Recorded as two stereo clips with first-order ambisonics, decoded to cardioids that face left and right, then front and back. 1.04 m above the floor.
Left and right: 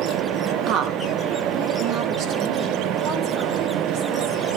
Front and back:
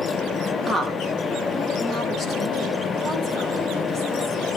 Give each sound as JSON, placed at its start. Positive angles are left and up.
{"t": 0.7, "sound": "a woman speaking", "azimuth_deg": -85, "distance_m": 0.9}